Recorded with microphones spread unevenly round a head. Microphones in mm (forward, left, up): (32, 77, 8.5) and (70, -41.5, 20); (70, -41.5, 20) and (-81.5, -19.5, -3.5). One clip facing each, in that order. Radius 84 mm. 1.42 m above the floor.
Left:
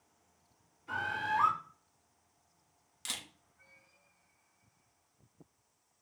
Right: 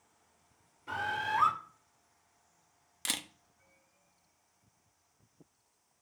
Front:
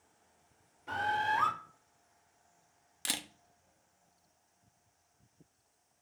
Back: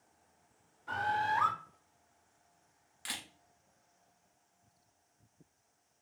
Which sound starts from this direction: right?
A bird, at 0.9 s.